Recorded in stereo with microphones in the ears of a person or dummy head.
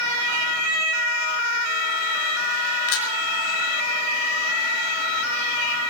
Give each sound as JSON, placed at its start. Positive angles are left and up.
{"t": 2.9, "sound": "a camera shutter", "side_deg": 80, "distance_m": 5.0}